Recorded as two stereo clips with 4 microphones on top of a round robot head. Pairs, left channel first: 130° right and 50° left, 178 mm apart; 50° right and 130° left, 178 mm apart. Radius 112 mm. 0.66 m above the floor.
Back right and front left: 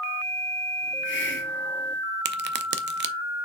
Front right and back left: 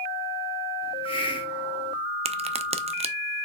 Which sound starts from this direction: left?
A crack, at 2.2 s.